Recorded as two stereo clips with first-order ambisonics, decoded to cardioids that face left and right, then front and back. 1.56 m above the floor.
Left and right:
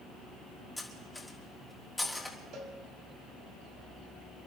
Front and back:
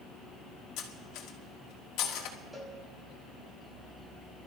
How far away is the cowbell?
About 1.9 m.